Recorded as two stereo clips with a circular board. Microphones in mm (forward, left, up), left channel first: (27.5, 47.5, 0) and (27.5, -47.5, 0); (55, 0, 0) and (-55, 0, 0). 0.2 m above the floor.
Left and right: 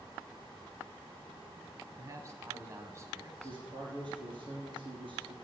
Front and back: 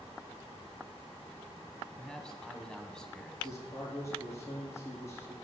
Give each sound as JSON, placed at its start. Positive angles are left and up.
{"t": 2.0, "sound": "a man speaking", "azimuth_deg": -75, "distance_m": 1.2}
{"t": 3.4, "sound": "a man speaking", "azimuth_deg": -60, "distance_m": 4.0}